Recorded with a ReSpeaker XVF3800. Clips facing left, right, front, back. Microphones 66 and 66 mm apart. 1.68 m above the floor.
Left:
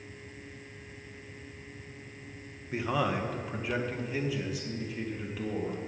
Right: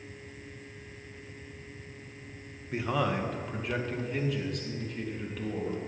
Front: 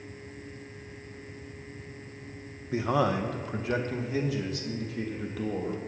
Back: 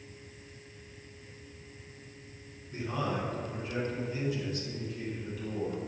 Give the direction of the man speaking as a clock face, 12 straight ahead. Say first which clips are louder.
Even, front 7 dB; 12 o'clock.